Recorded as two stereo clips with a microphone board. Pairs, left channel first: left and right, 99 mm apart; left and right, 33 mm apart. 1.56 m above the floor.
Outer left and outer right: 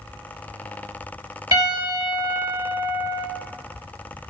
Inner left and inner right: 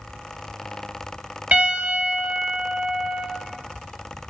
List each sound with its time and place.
1.5 s a piano: 45° right (ahead or behind), 2.5 m